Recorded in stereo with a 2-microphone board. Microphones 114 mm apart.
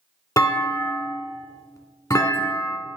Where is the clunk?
30° left (ahead or behind), 1.0 m.